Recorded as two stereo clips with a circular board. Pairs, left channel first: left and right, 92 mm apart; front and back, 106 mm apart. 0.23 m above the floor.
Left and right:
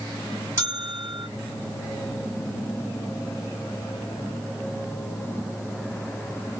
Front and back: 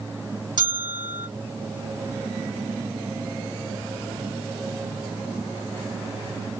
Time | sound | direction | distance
0.6 | a bell | 145° right | 1.6 m